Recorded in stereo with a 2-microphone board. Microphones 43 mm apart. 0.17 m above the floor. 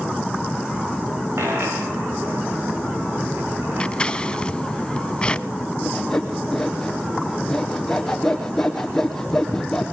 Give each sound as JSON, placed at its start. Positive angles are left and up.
{"t": 1.4, "sound": "a dropped coin", "side_deg": -75, "distance_m": 7.0}
{"t": 3.8, "sound": "scissors", "side_deg": 25, "distance_m": 0.7}
{"t": 5.8, "sound": "sawing", "side_deg": 10, "distance_m": 3.5}